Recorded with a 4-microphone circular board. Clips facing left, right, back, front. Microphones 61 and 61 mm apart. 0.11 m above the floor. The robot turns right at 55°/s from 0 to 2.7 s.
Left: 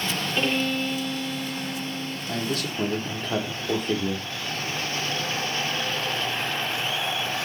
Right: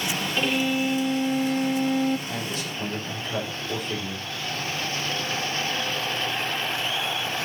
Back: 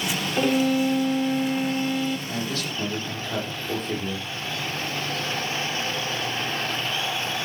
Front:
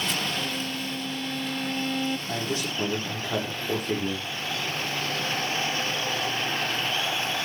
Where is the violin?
175° left, 0.6 m; by 2.2 s 85° right, 0.6 m.